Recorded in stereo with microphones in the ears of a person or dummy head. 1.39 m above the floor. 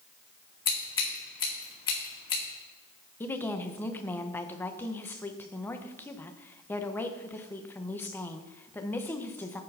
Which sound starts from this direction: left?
Scissors, at 0.7 s.